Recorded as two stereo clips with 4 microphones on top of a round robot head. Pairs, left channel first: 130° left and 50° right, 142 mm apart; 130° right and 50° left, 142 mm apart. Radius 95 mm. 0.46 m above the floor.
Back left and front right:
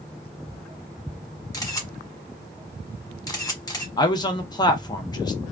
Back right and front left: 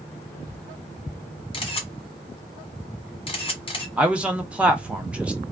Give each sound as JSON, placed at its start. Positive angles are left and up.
{"t": 1.5, "sound": "a camera shutter", "azimuth_deg": -170, "distance_m": 1.3}
{"t": 4.0, "sound": "a man speaking", "azimuth_deg": 125, "distance_m": 0.8}